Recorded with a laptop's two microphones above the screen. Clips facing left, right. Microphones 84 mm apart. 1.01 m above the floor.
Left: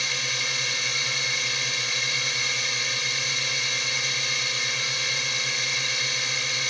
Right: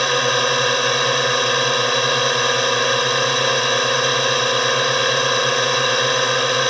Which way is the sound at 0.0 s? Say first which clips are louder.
Right 15 dB; 60° right (ahead or behind).